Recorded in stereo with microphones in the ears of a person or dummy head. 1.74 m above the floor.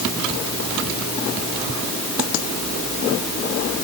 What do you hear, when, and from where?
Only background noise.